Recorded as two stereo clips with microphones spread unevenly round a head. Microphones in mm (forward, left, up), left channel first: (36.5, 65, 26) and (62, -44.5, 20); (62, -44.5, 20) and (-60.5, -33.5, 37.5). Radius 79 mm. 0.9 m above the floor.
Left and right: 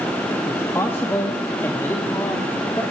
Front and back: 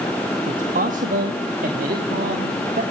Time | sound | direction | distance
0.5 | a man speaking | 175° left | 1.7 m